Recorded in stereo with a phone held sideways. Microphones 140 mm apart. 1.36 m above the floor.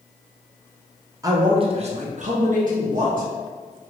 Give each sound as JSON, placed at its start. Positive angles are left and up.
{"t": 1.2, "sound": "a man speaking", "side_deg": -25, "distance_m": 0.6}